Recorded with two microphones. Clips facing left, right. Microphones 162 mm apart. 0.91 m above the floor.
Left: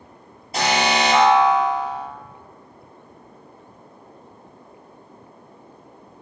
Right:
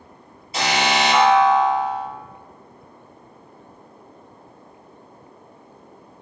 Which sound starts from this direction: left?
An alarm, at 0.5 s.